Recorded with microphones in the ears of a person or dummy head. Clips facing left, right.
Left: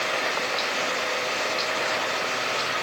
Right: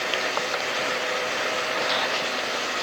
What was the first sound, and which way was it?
Only background noise.